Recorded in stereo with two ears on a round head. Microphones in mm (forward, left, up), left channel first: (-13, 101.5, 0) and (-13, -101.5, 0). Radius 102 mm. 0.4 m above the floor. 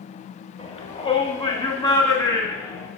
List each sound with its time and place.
0.6 s a shout: 30° left (ahead or behind), 1.8 m; by 2.9 s 15° left (ahead or behind), 3 m